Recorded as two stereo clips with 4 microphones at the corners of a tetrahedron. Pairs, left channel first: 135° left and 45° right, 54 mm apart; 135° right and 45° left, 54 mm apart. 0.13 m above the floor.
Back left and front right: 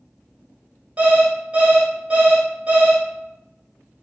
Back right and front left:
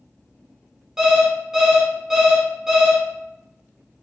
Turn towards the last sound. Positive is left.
turn(degrees=-25)